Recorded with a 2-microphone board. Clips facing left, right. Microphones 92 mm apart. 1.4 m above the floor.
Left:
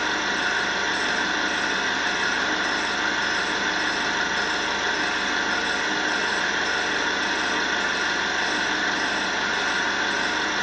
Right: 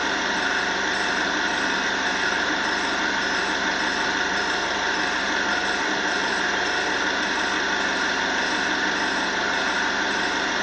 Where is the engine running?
65° right (ahead or behind), 2.5 m.